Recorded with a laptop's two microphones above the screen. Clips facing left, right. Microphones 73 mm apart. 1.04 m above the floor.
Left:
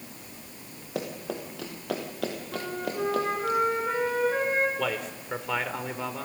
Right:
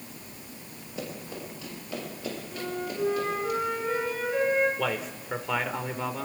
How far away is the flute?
About 5.5 m.